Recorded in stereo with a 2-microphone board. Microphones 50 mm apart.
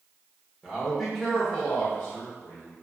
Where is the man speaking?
15° right (ahead or behind), 0.9 m; by 2.7 s 35° left (ahead or behind), 1.2 m.